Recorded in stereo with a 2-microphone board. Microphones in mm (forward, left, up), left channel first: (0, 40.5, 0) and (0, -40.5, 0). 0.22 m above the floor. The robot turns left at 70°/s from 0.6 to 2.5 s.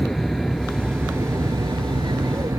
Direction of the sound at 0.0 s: 5° left.